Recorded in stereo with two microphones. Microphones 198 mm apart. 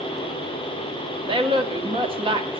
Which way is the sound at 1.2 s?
25° right (ahead or behind).